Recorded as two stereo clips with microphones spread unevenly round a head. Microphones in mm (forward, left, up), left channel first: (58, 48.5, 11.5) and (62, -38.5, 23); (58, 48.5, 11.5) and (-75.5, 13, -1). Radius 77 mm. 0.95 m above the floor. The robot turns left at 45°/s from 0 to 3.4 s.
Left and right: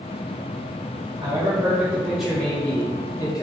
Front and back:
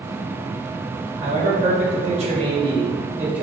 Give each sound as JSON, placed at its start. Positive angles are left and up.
{"t": 1.2, "sound": "a man speaking", "azimuth_deg": -140, "distance_m": 1.2}